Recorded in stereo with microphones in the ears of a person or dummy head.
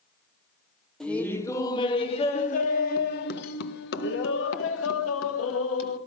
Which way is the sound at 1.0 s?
5° left (ahead or behind).